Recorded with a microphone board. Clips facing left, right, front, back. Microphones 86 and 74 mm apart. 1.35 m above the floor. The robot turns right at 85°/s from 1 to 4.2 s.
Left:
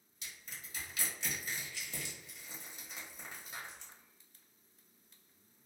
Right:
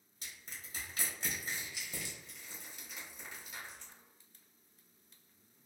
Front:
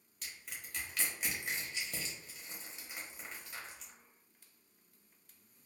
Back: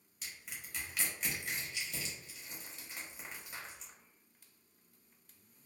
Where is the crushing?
100° right, 1.0 m; by 3.9 s 150° left, 1.0 m.